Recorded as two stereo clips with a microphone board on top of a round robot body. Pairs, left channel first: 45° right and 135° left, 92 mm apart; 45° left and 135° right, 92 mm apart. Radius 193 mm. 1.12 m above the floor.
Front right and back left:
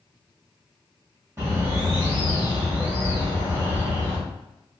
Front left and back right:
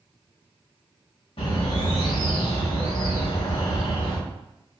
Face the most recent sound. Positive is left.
turn(degrees=70)